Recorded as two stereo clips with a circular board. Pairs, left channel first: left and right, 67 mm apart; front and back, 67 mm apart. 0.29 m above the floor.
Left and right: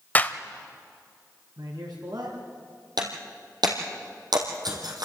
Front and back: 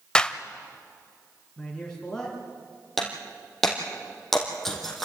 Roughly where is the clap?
Ahead left.